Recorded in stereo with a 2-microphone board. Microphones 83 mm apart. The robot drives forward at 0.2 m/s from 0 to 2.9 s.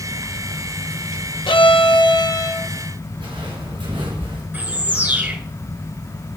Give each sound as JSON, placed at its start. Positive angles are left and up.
{"t": 1.5, "sound": "a violin", "side_deg": 80, "distance_m": 0.5}
{"t": 3.2, "sound": "footsteps", "side_deg": -80, "distance_m": 3.5}
{"t": 4.5, "sound": "a bird", "side_deg": -20, "distance_m": 1.4}